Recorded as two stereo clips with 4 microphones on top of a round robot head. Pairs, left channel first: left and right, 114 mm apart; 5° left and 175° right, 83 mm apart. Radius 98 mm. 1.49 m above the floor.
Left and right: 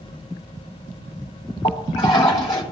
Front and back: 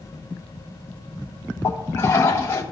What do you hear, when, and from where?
1.6 s a toilet flushing: 60° left, 3 m